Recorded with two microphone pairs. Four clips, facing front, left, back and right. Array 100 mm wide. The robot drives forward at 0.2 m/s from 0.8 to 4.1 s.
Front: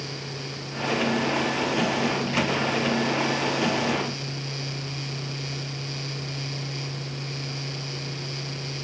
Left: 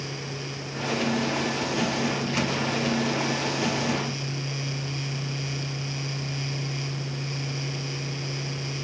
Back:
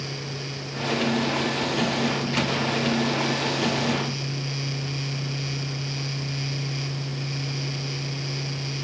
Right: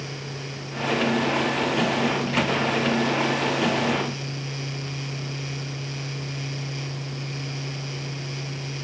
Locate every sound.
Only background noise.